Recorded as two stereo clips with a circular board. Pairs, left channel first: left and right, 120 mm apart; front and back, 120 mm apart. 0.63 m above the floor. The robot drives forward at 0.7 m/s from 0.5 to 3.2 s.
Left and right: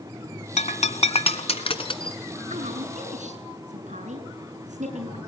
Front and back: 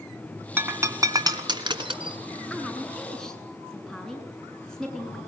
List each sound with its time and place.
0.6 s breaking glass: 105° left, 1.5 m; by 2.2 s 135° left, 2 m
2.5 s a woman speaking: 80° right, 7 m; by 5.2 s 85° right, 7 m